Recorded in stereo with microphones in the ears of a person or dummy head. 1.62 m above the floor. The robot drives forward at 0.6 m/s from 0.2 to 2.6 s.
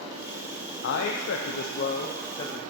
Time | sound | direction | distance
0.8 | a man speaking | 80° left | 0.6 m